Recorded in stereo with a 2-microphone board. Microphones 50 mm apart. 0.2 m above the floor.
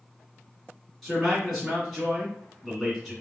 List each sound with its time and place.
1.0 s a man speaking: centre (ahead or behind), 2 m